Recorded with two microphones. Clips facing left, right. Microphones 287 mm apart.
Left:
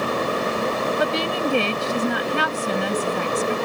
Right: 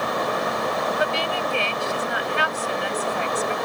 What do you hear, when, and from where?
1.0 s a woman speaking: 55° left (ahead or behind)